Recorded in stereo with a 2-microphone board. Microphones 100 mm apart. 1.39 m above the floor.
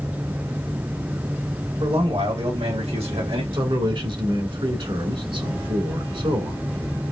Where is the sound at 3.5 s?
55° right (ahead or behind), 2 m.